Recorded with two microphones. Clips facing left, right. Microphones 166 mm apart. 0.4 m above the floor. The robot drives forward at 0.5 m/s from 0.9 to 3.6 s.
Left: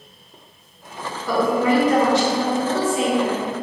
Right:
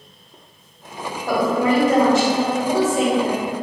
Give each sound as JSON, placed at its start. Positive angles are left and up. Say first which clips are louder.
{"t": 1.3, "sound": "a woman speaking", "louder": "even", "side_deg": -45, "distance_m": 1.5}